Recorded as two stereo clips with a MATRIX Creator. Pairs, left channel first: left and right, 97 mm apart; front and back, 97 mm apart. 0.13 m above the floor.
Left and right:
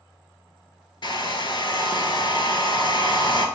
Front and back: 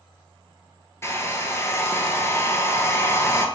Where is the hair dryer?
60° left, 0.6 m.